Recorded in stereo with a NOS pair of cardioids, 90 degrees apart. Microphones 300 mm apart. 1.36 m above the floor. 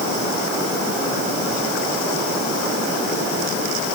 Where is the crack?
No crack in this recording.